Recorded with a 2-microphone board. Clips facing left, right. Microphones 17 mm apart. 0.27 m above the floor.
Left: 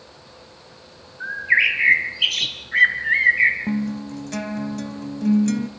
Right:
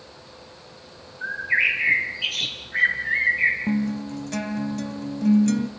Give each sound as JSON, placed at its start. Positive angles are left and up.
{"t": 1.2, "sound": "a bird", "side_deg": 45, "distance_m": 2.5}
{"t": 3.7, "sound": "a guitar", "side_deg": 0, "distance_m": 0.7}